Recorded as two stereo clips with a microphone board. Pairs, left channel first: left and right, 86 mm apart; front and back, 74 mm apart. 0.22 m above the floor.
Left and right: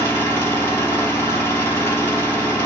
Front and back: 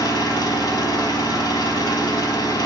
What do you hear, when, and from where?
0.0 s an engine running: 20° left, 3.5 m